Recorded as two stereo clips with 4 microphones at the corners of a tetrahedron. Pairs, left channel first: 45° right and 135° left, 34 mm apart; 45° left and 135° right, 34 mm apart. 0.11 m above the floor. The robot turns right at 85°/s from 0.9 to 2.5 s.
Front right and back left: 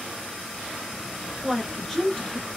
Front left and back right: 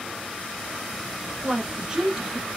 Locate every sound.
1.4 s a woman speaking: 155° right, 1.1 m; by 2.5 s 65° right, 1.1 m